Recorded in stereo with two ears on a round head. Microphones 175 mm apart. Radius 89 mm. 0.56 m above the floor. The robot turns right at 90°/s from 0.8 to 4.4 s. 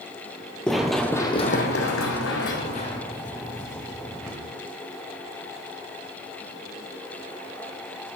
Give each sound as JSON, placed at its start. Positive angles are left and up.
{"t": 0.7, "sound": "running footsteps", "side_deg": 5, "distance_m": 0.8}